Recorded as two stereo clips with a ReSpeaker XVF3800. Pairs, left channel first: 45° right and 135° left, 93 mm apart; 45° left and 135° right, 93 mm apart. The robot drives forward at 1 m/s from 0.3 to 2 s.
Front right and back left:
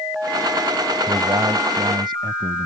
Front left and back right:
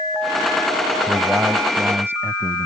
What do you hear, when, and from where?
1.1 s a man speaking: 155° left; by 2.7 s 165° left